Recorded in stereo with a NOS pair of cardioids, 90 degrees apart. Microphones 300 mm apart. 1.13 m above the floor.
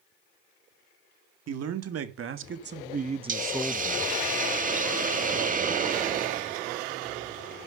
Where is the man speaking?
55° right, 2.5 m; by 4.2 s 20° left, 1.2 m.